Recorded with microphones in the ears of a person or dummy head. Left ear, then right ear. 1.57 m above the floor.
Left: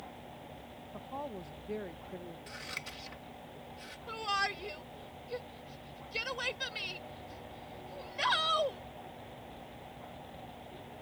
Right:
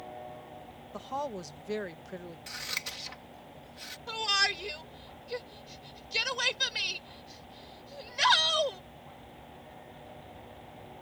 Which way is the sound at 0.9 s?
65° right (ahead or behind).